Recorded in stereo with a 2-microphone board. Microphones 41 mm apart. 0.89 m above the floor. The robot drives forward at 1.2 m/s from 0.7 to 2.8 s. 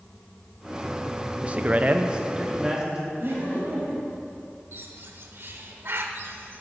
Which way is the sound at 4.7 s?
60° right (ahead or behind).